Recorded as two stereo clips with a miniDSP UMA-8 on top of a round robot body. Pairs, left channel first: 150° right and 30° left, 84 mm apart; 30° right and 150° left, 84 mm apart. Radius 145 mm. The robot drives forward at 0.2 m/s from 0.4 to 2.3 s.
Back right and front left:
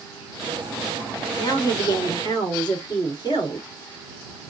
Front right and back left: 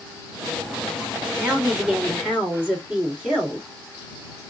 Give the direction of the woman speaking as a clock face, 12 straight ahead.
4 o'clock.